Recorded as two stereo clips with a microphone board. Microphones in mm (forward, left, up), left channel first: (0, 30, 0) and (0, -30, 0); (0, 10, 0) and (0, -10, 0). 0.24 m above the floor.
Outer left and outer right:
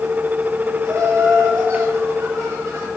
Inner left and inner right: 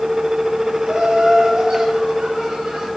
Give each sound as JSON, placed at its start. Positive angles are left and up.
{"t": 0.8, "sound": "laughter", "side_deg": -50, "distance_m": 3.5}